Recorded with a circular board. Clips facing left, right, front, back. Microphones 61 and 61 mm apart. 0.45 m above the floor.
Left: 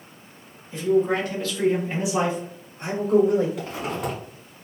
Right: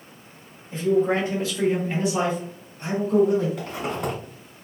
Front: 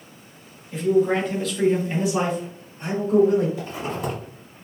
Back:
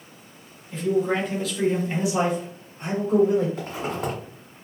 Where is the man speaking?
85° right, 1.1 m; by 3.5 s 105° left, 1.3 m.